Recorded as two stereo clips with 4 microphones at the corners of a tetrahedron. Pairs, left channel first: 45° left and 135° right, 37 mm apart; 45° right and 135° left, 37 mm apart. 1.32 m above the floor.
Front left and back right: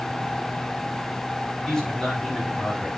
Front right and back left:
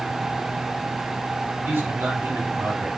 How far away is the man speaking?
About 7.5 m.